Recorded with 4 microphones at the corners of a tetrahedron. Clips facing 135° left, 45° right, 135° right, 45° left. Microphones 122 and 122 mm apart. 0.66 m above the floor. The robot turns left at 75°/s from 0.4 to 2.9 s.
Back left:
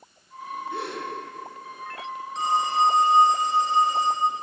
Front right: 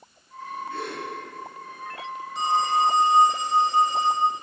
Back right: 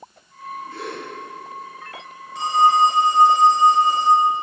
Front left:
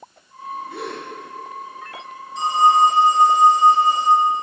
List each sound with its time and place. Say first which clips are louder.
0.7 s a gasp: back left 2 dB, front left 1 dB; 65° left, 3 m; by 1.0 s 40° left, 3 m
2.4 s a phone ringing: even, front left 1 dB; 130° right, 3 m; by 4.3 s 170° right, 3 m